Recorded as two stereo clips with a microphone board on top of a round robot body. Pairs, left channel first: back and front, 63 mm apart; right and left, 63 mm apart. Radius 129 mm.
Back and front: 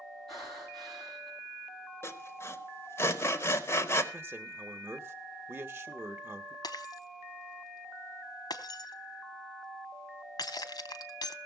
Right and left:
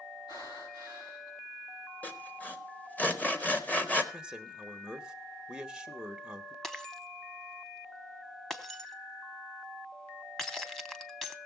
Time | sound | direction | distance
0.3 | breathing | 90° right | 7 m
2.0 | sawing | 145° right | 1.7 m
4.1 | a man speaking | 15° left | 1.2 m
6.6 | breaking glass | 175° right | 1.0 m